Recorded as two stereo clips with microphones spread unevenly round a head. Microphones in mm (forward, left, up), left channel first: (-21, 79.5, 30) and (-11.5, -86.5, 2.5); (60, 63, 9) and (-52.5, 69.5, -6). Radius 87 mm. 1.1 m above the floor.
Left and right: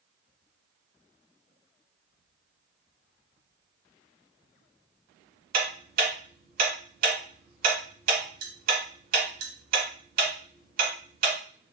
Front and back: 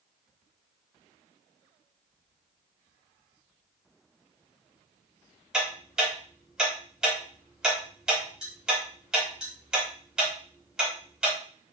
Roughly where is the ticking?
Right.